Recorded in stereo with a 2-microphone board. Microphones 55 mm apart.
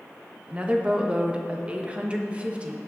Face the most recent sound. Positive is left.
turn(degrees=-20)  # may be behind; listen again after turning